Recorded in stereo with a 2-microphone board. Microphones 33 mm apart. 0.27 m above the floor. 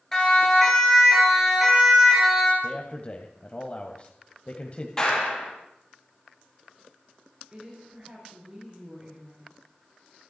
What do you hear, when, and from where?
0.1 s a siren: 15° left (ahead or behind), 5.5 m; by 2.5 s 15° right (ahead or behind), 6 m
2.6 s a man speaking: 35° left (ahead or behind), 1.6 m
5.0 s a clap: 20° left (ahead or behind), 6.5 m
7.5 s a woman speaking: 25° right (ahead or behind), 5.5 m